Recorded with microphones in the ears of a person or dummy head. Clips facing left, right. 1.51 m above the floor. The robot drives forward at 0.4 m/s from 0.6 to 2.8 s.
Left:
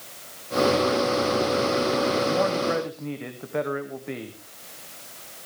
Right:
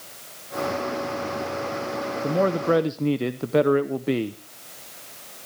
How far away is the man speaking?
About 0.8 m.